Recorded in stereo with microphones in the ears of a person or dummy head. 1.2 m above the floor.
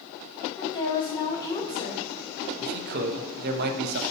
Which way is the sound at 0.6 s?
25° left (ahead or behind).